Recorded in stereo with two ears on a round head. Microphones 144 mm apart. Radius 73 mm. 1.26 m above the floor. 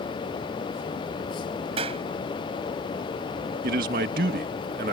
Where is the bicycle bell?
I don't hear a bicycle bell.